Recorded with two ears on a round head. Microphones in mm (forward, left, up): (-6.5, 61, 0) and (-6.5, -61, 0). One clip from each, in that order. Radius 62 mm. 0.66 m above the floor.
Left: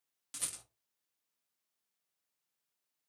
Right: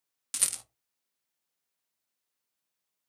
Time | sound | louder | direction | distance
0.3 | a rattle | right 10 dB | 45° right (ahead or behind) | 0.6 m